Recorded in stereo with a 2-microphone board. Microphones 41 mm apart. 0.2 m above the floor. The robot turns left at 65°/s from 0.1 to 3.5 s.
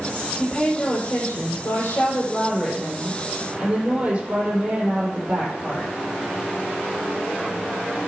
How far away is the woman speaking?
About 6 m.